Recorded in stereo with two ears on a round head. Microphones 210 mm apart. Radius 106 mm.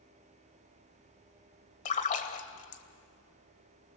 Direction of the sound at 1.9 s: 30° left (ahead or behind).